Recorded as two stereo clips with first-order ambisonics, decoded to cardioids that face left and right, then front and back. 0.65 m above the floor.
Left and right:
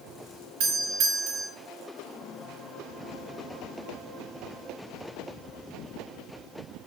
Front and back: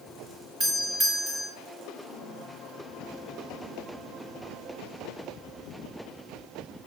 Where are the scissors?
I don't hear scissors.